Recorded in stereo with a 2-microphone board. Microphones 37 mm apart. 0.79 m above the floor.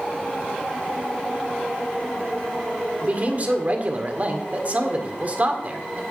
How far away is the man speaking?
About 1.9 m.